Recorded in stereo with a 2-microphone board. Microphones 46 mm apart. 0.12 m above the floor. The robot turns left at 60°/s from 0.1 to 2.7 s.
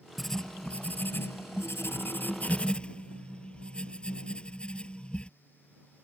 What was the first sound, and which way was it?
Writing, straight behind.